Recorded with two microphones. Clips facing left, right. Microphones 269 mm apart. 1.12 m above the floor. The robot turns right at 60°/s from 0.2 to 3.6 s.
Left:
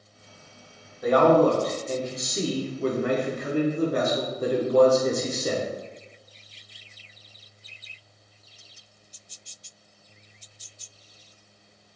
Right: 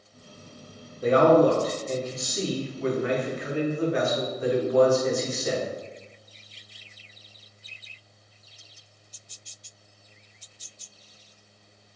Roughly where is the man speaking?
Ahead right.